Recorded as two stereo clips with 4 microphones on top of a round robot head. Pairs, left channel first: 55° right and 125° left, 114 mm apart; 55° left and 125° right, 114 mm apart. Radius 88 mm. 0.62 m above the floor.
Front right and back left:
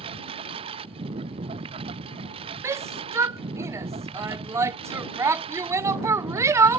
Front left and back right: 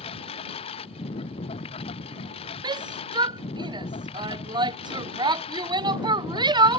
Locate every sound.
0.0 s a lawn mower: 90° left
2.6 s a shout: 170° right